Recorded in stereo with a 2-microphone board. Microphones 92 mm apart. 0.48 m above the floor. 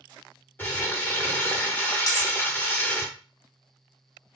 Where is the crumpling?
20° left (ahead or behind), 0.6 m.